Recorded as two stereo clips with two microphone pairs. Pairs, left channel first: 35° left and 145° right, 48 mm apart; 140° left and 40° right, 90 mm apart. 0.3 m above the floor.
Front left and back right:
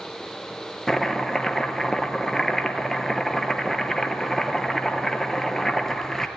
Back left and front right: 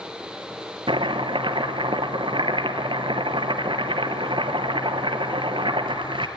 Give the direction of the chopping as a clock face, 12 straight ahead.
2 o'clock.